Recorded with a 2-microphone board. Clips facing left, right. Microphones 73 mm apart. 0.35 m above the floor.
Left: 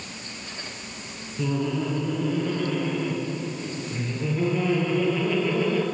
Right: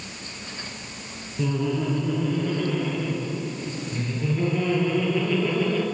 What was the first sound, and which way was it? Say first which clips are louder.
Laughter: right 1 dB; centre (ahead or behind).